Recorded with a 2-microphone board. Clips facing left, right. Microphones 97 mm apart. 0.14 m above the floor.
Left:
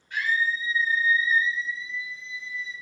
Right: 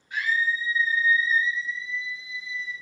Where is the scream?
15° right (ahead or behind), 2 m; by 2.7 s 25° left (ahead or behind), 2.5 m.